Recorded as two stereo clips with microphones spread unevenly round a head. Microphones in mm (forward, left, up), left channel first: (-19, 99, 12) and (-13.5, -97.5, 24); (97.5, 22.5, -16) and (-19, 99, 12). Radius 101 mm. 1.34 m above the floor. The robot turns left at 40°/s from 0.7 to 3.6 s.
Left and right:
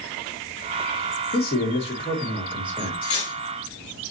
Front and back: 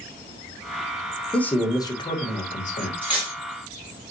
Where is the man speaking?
50° left, 1.5 m; by 2.9 s 15° right, 1.5 m.